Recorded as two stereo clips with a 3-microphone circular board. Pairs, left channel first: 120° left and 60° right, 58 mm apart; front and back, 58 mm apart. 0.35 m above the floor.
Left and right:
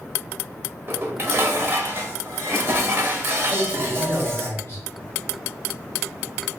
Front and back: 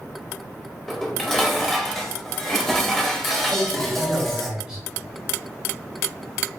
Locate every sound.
0.9 s dishes clattering: 85° right, 0.9 m
3.5 s a man speaking: 110° left, 1.5 m